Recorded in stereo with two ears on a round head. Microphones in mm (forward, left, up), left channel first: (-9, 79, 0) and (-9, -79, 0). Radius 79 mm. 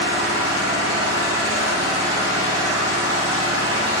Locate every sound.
0.0 s an engine running: 70° right (ahead or behind), 0.8 m